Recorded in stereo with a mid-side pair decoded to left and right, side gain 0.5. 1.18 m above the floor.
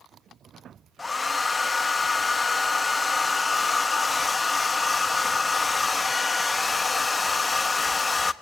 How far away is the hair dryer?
About 1.0 m.